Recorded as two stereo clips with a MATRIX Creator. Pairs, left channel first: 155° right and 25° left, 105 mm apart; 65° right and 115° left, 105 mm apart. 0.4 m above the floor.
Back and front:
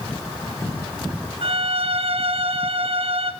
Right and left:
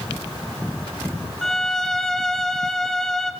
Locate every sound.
1.4 s a violin: 15° left, 2.5 m